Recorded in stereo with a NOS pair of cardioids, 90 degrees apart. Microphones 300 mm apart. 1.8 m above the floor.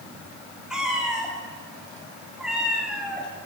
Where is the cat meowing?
Straight ahead, 6 m.